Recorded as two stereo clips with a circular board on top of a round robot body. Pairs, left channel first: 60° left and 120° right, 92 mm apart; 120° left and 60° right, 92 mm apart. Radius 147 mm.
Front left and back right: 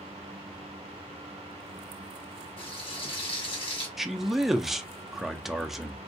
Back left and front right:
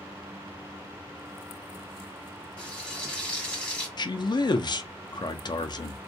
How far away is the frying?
About 1.4 m.